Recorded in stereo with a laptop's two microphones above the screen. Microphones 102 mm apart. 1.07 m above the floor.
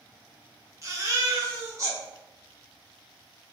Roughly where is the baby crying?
Right.